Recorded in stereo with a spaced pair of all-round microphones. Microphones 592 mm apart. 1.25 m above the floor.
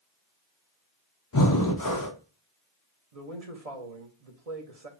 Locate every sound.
1.3 s breathing: 35° left (ahead or behind), 0.8 m
3.1 s a man speaking: 75° right (ahead or behind), 1.4 m